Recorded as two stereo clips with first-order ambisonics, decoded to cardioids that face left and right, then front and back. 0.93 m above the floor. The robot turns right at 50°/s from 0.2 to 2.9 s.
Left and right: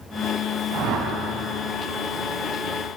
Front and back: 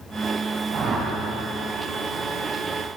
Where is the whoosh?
130° right, 4 m; by 1.1 s 110° right, 4 m.